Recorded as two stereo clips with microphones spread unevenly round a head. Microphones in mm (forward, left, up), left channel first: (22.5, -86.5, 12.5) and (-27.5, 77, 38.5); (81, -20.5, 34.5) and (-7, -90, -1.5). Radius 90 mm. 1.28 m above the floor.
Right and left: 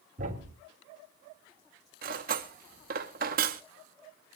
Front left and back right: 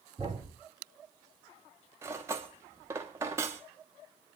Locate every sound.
0.2 s a thud: 145° left, 3 m
2.0 s cutlery clinking: 135° left, 1.1 m